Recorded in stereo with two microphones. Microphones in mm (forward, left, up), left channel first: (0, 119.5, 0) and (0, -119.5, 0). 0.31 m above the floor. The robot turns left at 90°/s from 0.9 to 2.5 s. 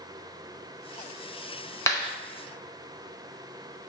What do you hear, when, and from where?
1.9 s a clap: 10° left (ahead or behind), 0.7 m; by 2.1 s 20° left (ahead or behind), 0.7 m